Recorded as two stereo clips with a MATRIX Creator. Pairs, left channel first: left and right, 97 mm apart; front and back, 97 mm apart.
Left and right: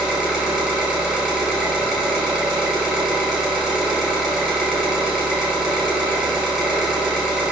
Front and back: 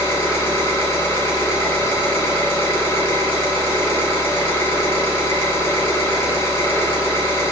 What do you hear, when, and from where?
0.0 s an engine running: 5° left, 1.5 m